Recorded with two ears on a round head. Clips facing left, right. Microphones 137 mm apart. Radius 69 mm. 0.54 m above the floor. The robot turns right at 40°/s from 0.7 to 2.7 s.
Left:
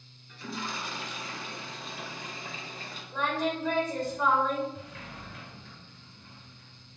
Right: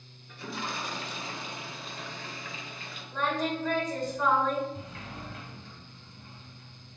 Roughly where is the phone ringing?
No phone ringing in this recording.